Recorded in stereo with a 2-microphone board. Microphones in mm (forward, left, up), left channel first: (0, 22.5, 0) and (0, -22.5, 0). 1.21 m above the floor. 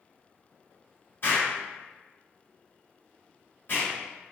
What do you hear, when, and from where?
1.2 s an explosion: 50° left (ahead or behind), 2.0 m